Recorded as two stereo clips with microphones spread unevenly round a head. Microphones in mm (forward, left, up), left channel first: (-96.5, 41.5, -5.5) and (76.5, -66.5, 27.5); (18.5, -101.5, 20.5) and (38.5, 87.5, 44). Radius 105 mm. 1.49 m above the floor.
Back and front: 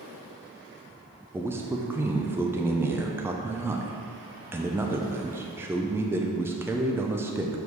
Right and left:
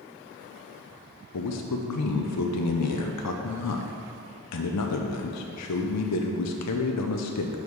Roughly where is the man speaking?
Right.